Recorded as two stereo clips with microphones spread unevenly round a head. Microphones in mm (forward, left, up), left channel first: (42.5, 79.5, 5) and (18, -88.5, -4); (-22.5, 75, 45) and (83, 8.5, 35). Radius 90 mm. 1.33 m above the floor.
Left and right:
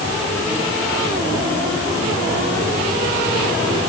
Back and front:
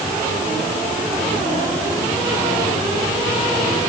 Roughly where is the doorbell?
No doorbell in this recording.